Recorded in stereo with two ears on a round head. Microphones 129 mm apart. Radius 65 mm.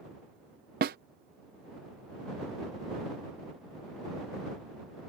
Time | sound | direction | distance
0.8 | a snare drum | 65° right (ahead or behind) | ?